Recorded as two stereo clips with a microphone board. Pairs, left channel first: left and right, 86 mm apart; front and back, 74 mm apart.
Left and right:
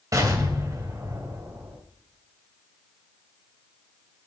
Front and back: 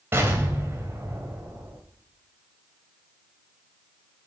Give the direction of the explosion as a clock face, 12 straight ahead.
4 o'clock.